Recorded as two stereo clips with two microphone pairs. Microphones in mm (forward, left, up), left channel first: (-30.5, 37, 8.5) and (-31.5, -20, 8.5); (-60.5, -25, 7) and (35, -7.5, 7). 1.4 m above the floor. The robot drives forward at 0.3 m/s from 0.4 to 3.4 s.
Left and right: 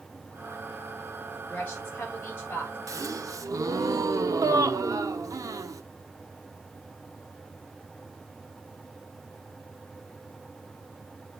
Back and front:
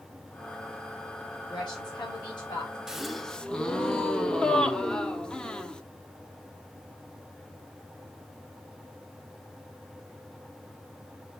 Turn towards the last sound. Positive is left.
turn(degrees=-90)